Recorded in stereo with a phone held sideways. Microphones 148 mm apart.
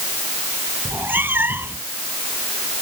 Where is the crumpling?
No crumpling in this recording.